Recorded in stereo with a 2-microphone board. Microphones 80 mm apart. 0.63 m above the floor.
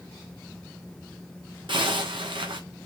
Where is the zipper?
70° right (ahead or behind), 1.3 m.